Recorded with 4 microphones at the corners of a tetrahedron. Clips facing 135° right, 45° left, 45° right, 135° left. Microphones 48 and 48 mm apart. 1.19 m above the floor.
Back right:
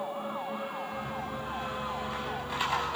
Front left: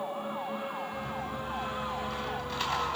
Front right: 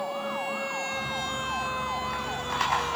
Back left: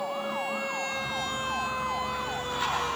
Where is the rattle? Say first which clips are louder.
Even, even; 60° right, 5 m.